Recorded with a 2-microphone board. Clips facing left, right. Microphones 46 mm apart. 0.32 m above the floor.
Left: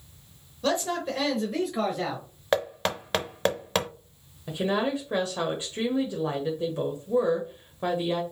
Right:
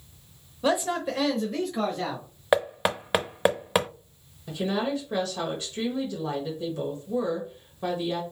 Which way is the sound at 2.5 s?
15° right (ahead or behind).